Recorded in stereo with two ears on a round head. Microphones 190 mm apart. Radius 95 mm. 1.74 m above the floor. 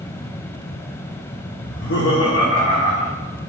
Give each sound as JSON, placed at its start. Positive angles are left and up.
{"t": 1.6, "sound": "laughter", "side_deg": 40, "distance_m": 0.6}